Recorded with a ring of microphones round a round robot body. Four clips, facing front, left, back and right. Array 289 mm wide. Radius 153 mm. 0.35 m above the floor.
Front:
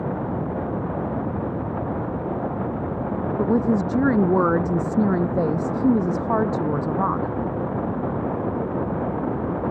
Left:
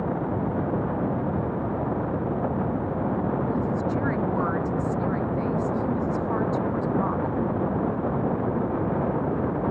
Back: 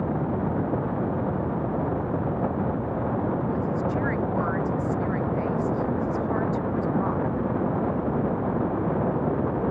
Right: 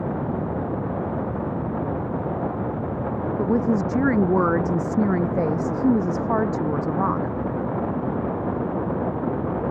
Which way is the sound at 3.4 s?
35° right.